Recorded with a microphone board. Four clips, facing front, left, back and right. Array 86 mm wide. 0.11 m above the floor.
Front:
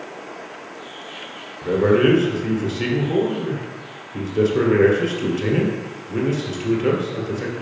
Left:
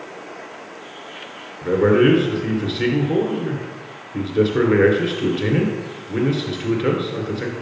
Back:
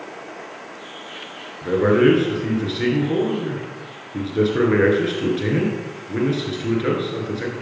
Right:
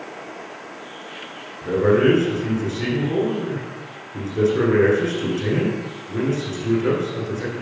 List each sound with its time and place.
1.6 s a man speaking: 125° left, 1.6 m